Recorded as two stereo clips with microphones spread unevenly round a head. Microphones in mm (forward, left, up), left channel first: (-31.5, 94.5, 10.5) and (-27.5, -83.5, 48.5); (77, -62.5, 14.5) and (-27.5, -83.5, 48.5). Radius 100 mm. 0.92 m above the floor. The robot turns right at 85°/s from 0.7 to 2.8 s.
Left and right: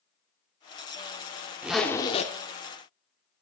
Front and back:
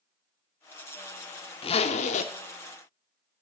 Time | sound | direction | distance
1.6 | a zipper | 25° right | 0.6 m